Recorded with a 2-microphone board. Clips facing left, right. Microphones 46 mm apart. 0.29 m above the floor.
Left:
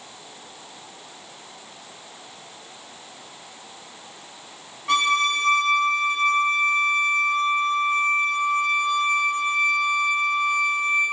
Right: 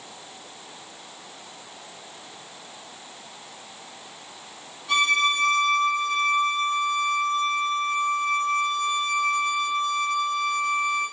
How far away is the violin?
About 0.6 m.